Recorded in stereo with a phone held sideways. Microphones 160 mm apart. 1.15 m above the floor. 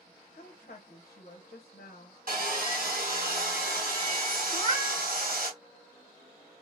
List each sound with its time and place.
0.3 s a woman speaking: 55° left (ahead or behind), 0.9 m
2.3 s sawing: 65° right (ahead or behind), 1.8 m
4.5 s a cat meowing: 30° left (ahead or behind), 1.4 m